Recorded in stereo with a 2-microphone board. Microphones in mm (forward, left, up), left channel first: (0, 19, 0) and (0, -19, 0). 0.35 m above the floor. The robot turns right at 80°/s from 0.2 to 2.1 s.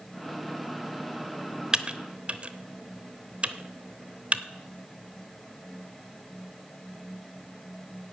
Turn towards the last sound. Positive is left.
turn(degrees=-35)  # may be behind; listen again after turning